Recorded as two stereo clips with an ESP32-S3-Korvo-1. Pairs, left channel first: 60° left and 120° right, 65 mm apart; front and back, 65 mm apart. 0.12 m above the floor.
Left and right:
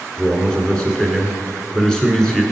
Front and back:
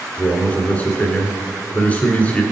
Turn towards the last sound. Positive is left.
turn(degrees=-5)